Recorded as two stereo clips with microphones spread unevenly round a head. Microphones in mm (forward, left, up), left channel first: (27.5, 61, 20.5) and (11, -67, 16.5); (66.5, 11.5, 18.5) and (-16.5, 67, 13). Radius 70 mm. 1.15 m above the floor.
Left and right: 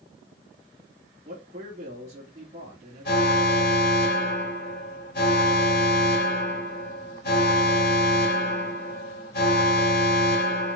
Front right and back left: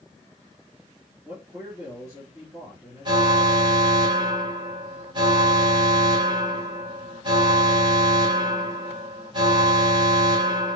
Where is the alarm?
105° left, 2 m.